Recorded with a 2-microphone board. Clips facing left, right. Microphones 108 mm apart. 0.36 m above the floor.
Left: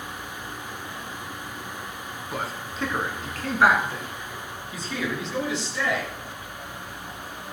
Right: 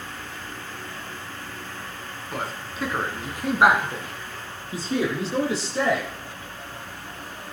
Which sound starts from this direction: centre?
A man speaking, at 2.3 s.